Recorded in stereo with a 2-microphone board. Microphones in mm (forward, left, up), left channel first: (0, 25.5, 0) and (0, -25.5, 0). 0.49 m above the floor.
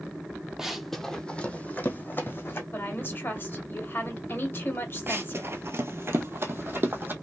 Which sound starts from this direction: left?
A woman speaking, at 2.7 s.